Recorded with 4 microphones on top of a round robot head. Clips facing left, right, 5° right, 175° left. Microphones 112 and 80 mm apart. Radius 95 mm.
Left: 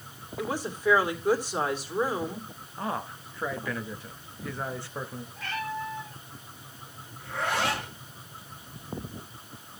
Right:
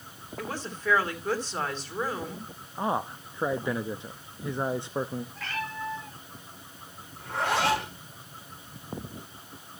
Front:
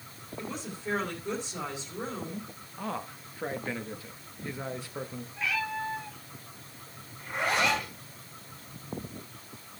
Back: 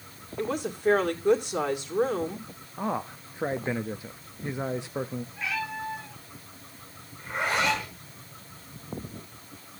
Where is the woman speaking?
165° left, 2.5 m.